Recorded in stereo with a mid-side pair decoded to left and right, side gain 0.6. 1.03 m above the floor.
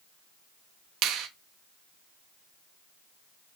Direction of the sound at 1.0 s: 60° right.